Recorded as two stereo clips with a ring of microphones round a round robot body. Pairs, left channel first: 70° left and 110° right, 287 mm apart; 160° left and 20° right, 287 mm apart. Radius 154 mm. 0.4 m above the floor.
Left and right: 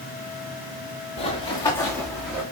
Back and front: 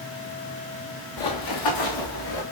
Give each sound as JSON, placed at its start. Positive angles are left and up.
{"t": 1.2, "sound": "running footsteps", "azimuth_deg": 140, "distance_m": 2.0}